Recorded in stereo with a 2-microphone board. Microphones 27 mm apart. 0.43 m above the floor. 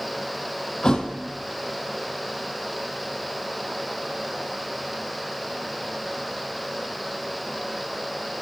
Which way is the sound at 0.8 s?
30° left (ahead or behind).